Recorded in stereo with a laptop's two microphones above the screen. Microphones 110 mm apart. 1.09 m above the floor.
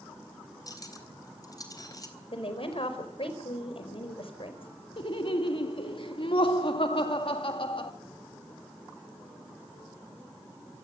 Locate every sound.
0.7 s cutlery clinking: 35° left (ahead or behind), 3.5 m
2.3 s a woman speaking: 65° left (ahead or behind), 4 m
5.0 s laughter: 60° left (ahead or behind), 2.0 m